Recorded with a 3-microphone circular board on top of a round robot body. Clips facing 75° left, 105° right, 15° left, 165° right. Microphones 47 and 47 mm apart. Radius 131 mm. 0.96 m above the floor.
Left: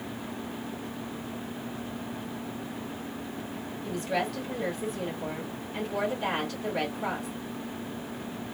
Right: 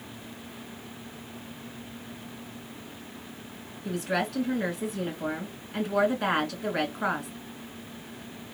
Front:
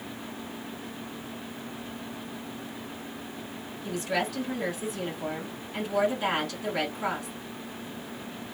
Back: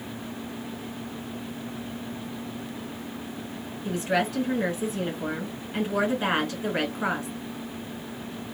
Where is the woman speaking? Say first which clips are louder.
Right 1 dB, back 4 dB; 105° right, 2.5 m.